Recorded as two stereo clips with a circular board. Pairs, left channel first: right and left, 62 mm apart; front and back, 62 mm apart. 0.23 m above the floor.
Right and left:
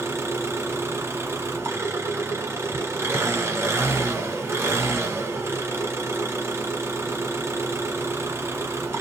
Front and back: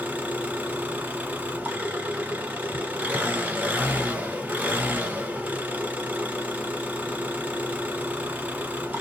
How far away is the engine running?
About 1.4 m.